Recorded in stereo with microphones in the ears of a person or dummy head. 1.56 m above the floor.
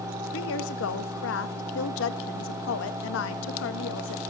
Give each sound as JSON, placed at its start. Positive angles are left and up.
{"t": 0.3, "sound": "a woman speaking", "side_deg": 80, "distance_m": 1.9}